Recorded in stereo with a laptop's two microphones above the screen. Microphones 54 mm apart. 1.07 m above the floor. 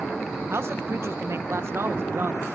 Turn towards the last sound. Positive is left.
turn(degrees=-50)  # may be behind; listen again after turning